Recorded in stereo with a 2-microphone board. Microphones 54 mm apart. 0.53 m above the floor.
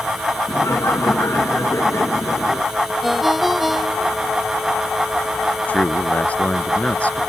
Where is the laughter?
65° left (ahead or behind); by 2.7 s 60° left (ahead or behind).